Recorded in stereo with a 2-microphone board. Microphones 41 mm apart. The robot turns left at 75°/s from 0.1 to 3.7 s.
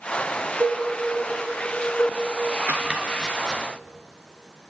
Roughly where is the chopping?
Right.